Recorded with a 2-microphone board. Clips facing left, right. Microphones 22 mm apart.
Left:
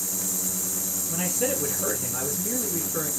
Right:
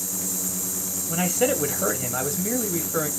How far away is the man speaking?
About 0.9 m.